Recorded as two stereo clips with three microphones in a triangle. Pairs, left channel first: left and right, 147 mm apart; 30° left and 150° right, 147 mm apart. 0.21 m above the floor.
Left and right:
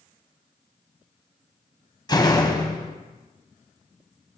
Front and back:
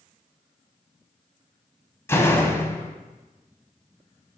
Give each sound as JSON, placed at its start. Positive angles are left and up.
{"t": 2.1, "sound": "a door slam", "azimuth_deg": 80, "distance_m": 0.8}